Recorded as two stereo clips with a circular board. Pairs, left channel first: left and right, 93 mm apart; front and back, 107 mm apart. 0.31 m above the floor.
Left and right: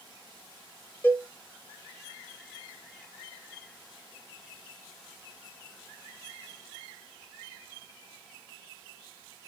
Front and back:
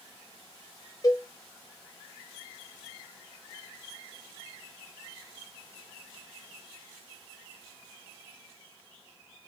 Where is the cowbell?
30° left, 0.9 m.